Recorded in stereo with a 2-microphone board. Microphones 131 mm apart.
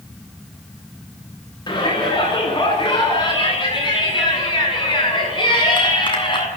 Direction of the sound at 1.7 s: 35° left (ahead or behind).